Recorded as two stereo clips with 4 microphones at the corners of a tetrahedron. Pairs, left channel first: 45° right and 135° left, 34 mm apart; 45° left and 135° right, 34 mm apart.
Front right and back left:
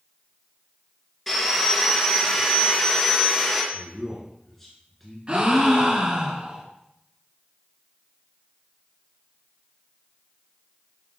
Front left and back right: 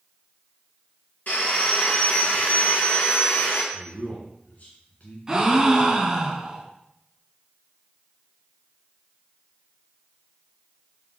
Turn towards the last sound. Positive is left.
turn(degrees=165)